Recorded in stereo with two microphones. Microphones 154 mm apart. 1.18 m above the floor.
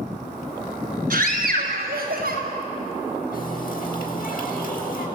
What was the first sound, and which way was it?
A scream, 60° right (ahead or behind).